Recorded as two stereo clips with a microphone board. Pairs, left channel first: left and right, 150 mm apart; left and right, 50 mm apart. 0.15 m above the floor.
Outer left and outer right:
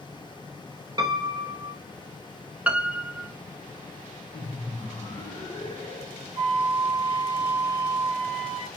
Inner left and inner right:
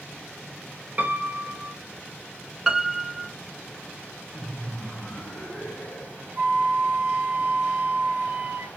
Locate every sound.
1.0 s a piano: 30° right (ahead or behind), 0.7 m
2.7 s a piano: 10° right (ahead or behind), 0.5 m
4.3 s laughter: 40° left (ahead or behind), 2.5 m
6.4 s a flute: 40° right (ahead or behind), 0.9 m